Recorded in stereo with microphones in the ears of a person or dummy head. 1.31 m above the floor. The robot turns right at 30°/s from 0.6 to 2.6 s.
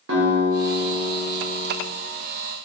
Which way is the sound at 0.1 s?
105° right.